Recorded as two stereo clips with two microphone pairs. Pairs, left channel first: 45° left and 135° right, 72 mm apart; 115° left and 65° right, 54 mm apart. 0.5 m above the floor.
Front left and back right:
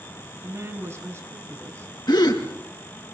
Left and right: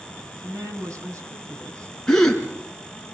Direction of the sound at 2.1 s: 35° left.